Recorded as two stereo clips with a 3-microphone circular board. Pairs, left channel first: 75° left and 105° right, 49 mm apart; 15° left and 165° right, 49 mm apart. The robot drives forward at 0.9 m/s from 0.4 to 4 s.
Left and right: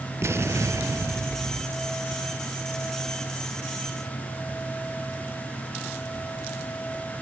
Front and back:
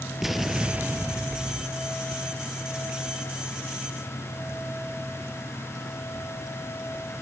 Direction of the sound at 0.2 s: 80° right.